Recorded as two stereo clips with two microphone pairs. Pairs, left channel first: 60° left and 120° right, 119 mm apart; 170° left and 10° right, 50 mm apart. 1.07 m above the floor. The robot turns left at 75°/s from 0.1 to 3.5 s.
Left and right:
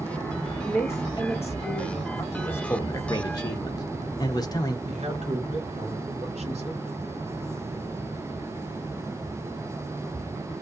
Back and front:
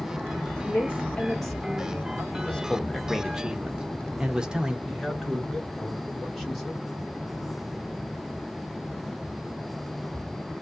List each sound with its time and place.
0.7 s a woman speaking: 145° left, 1.4 m; by 2.2 s 25° left, 1.4 m
2.3 s a man speaking: 135° left, 0.7 m; by 4.8 s 45° left, 0.7 m
4.8 s a man speaking: 100° right, 1.4 m